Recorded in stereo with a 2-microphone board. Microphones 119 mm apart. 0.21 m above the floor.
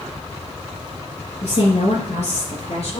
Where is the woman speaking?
70° left (ahead or behind), 3 m; by 3.0 s 65° left (ahead or behind), 3.5 m.